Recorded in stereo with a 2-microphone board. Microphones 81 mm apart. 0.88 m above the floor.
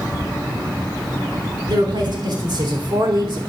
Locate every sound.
1.7 s a woman speaking: 70° right (ahead or behind), 3.5 m; by 3.5 s 75° right (ahead or behind), 2.5 m